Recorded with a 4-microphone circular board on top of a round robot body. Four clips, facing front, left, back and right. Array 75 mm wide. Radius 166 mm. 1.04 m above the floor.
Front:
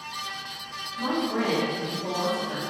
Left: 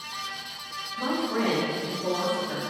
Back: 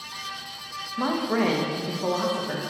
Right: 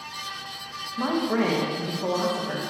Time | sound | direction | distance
1.0 | a man speaking | 150° right | 1.2 m